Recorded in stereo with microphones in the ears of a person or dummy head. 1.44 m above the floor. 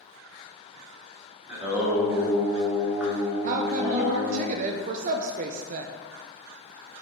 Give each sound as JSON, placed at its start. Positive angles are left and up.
{"t": 1.5, "sound": "singing", "side_deg": -15, "distance_m": 2.0}
{"t": 3.4, "sound": "a woman speaking", "side_deg": -40, "distance_m": 0.6}